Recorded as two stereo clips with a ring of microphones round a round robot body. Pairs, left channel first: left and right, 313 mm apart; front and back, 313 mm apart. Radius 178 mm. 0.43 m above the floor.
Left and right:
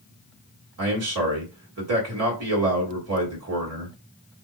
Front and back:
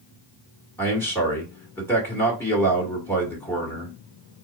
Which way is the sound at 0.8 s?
80° right.